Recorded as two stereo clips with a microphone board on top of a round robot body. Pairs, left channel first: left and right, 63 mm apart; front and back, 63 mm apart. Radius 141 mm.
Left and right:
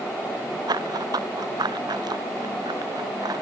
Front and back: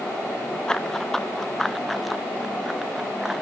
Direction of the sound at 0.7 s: 80° right.